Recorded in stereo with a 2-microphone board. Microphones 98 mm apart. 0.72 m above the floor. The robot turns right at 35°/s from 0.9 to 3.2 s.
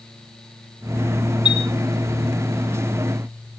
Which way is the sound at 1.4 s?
50° left (ahead or behind).